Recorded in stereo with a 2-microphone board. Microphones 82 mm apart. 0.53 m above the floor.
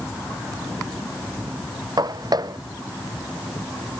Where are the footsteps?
55° right (ahead or behind).